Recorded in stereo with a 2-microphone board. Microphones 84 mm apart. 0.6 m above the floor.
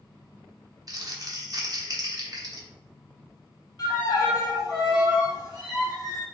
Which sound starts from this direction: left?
A violin, at 3.8 s.